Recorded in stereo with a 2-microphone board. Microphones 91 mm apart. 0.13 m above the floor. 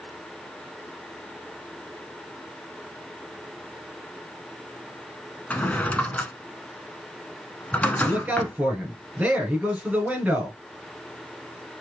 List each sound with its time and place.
5.5 s a drawer: 15° left (ahead or behind), 0.6 m
8.0 s a man speaking: 15° right (ahead or behind), 2.5 m